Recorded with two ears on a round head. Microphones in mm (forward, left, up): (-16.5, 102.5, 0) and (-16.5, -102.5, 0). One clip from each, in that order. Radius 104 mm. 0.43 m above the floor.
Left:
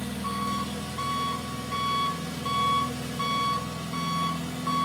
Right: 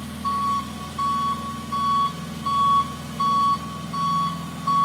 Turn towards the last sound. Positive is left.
turn(degrees=15)  # may be behind; listen again after turning